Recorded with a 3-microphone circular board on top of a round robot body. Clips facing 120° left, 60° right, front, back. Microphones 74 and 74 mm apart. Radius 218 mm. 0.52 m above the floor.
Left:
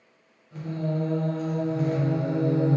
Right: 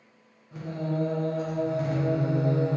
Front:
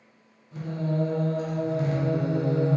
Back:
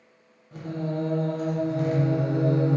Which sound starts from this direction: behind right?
Singing, at 0.5 s.